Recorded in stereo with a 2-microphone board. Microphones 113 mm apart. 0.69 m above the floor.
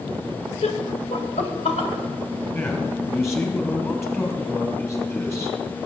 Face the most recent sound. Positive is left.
turn(degrees=25)  # may be behind; listen again after turning